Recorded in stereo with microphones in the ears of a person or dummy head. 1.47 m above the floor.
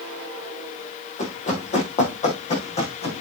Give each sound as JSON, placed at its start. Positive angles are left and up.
{"t": 1.2, "sound": "running footsteps", "side_deg": 40, "distance_m": 3.5}